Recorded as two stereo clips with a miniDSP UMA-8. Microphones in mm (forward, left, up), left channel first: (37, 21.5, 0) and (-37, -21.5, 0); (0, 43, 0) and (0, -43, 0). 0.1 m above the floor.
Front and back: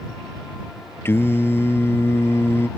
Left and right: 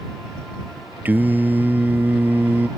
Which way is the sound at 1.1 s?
25° right.